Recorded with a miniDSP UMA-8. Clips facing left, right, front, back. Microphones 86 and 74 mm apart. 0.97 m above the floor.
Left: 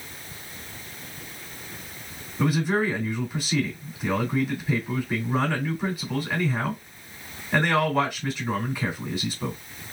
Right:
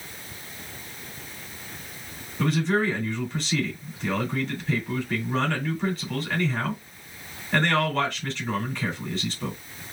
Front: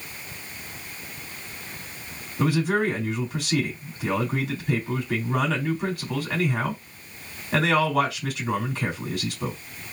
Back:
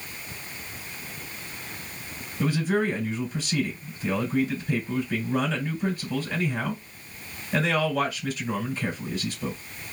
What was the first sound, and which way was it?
A man speaking, 10° left.